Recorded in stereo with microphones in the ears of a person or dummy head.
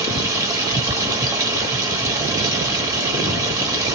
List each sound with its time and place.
0.0 s running water: 15° right (ahead or behind), 1.1 m